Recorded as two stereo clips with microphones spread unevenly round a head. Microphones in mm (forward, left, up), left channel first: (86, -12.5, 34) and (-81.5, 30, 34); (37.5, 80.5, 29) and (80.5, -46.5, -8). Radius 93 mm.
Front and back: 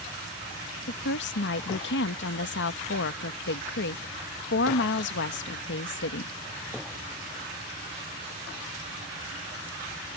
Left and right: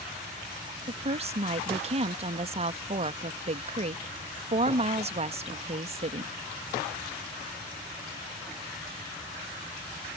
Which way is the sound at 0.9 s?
35° right.